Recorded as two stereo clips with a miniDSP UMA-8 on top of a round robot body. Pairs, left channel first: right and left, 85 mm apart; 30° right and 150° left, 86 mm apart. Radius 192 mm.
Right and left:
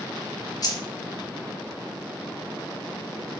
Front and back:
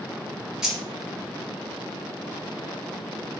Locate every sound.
0.6 s keys jangling: 130° right, 1.2 m